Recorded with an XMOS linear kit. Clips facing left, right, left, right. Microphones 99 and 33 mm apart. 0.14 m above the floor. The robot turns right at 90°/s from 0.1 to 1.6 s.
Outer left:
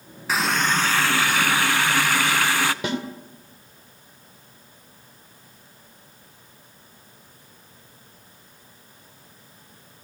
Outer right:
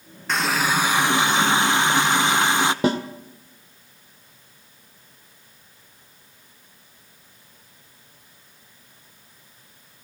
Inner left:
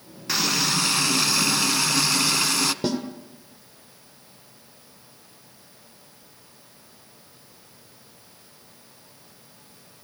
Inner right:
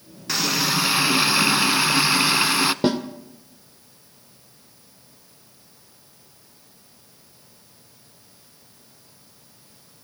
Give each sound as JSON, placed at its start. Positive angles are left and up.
{"t": 0.3, "sound": "a running tap", "side_deg": 5, "distance_m": 0.7}
{"t": 2.8, "sound": "a snare drum", "side_deg": -35, "distance_m": 2.5}